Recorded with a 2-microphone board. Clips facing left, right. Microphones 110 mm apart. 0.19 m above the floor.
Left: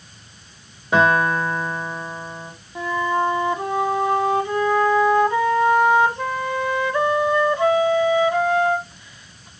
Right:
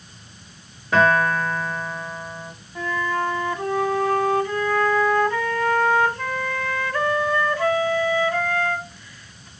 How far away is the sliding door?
No sliding door in this recording.